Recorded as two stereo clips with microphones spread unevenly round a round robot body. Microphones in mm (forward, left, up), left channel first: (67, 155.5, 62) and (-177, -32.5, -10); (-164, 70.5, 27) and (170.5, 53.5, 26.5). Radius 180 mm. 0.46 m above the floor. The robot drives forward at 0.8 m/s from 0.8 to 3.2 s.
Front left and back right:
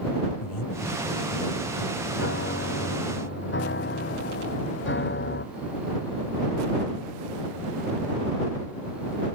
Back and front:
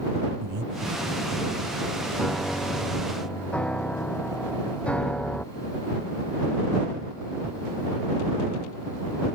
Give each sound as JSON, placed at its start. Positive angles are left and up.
{"t": 0.4, "sound": "breathing", "azimuth_deg": 30}
{"t": 2.1, "sound": "a piano", "azimuth_deg": 90}